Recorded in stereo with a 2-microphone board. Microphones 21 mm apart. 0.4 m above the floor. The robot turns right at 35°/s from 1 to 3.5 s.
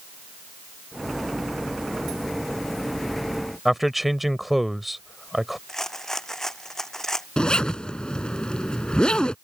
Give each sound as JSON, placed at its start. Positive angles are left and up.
{"t": 3.6, "sound": "a man speaking", "side_deg": -10}
{"t": 5.7, "sound": "a rattle", "side_deg": 20}
{"t": 7.4, "sound": "a zipper", "side_deg": 50}